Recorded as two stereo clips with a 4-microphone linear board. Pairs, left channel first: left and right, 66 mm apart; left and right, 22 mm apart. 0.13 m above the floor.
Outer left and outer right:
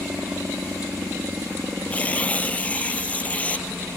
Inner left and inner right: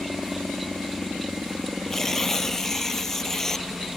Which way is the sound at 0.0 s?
35° right (ahead or behind).